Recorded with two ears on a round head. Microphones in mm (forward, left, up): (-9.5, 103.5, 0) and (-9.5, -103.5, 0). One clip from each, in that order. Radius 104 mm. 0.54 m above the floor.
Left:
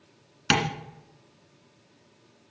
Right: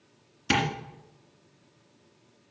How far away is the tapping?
About 2 m.